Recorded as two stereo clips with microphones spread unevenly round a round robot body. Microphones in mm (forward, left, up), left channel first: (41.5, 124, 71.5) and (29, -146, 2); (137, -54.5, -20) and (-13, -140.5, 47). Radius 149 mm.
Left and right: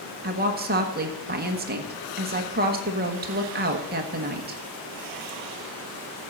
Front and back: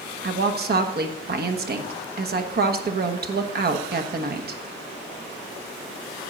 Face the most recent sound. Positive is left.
turn(degrees=-115)